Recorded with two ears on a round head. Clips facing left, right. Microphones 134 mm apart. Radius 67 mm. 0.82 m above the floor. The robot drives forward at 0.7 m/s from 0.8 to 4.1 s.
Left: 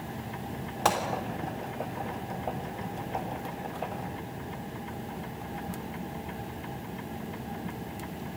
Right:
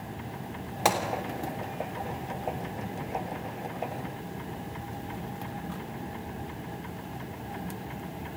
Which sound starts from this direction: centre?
A gunshot, at 0.8 s.